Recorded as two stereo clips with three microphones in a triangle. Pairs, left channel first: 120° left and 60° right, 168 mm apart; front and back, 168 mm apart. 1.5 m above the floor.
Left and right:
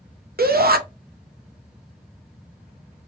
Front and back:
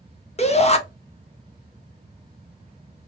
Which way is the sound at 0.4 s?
45° right.